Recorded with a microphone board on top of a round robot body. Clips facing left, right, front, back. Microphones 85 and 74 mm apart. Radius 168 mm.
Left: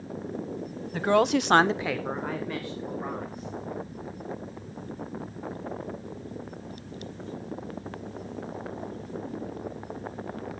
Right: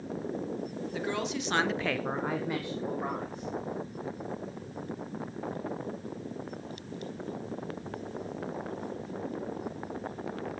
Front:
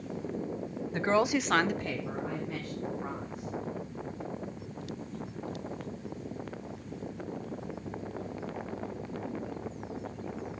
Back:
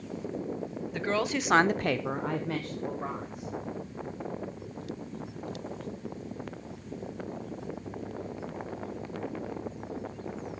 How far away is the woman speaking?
About 1.0 m.